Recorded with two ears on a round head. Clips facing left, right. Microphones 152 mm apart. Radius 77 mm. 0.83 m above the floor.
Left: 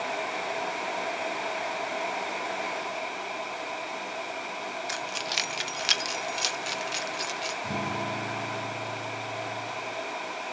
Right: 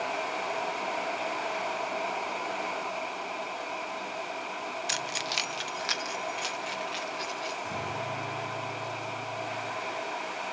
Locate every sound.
4.9 s keys jangling: 35° right (ahead or behind), 0.7 m; by 7.5 s 60° left (ahead or behind), 2.5 m
7.6 s a guitar: 70° left (ahead or behind), 6.5 m